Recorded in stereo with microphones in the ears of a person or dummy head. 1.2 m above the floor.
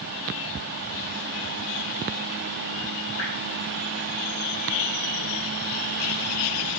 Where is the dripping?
75° left (ahead or behind), 5 m.